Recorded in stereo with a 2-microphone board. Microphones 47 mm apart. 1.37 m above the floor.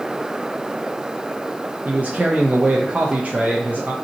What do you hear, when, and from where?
1.9 s a man speaking: 35° right (ahead or behind), 0.5 m